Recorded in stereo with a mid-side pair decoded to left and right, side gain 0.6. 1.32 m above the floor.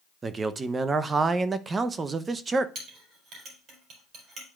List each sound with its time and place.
0.2 s a man speaking: 30° right, 0.7 m
2.8 s a clink: 55° right, 4 m